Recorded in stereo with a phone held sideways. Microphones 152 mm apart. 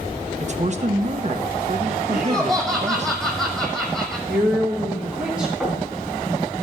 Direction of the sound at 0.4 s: 45° right (ahead or behind).